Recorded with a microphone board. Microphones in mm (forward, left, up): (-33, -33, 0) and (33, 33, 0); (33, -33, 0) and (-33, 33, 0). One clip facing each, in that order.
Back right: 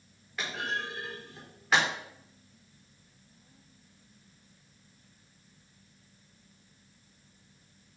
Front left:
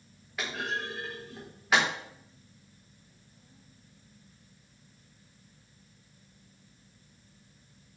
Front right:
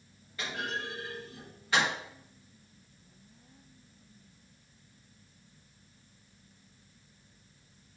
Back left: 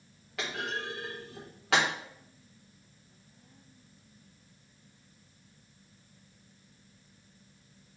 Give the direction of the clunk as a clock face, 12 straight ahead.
8 o'clock.